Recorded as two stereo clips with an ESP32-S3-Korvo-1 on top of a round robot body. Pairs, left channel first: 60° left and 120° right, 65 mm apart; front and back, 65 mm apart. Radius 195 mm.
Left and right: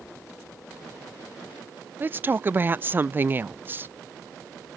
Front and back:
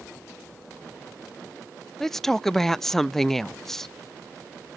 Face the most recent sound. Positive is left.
turn(degrees=-80)